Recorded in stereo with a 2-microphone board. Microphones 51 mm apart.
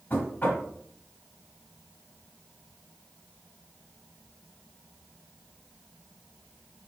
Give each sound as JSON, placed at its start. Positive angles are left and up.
{"t": 0.1, "sound": "knocking", "side_deg": 40, "distance_m": 1.8}